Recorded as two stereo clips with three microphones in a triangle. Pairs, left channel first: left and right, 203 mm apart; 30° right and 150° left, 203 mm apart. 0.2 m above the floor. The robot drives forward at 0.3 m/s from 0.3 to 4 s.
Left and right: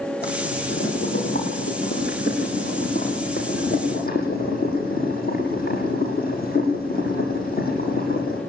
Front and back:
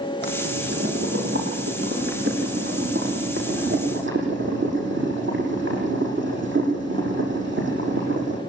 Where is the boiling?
125° left, 9.5 m; by 8.4 s 130° left, 10 m.